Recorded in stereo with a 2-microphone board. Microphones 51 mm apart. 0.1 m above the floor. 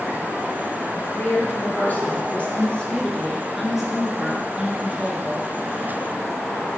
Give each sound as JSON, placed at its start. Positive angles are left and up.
{"t": 0.9, "sound": "a woman speaking", "side_deg": 45, "distance_m": 2.5}